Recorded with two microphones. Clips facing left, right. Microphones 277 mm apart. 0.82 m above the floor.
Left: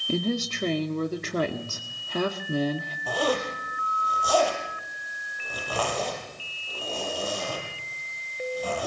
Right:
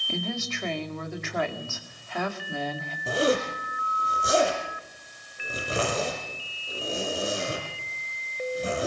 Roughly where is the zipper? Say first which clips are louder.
Right 3 dB; right.